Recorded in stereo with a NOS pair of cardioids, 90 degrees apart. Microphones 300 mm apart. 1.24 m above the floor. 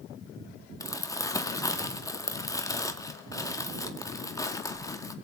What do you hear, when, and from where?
0.8 s crumpling: 10° left, 2 m